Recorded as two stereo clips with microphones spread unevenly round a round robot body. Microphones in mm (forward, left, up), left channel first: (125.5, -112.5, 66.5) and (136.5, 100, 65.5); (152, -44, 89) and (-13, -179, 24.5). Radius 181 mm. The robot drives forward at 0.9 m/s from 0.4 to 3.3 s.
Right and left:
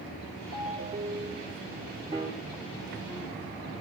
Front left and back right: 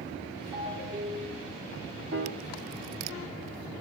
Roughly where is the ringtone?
Behind left.